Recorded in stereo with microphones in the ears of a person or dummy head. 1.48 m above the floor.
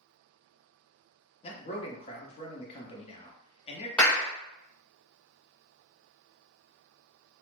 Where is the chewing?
No chewing in this recording.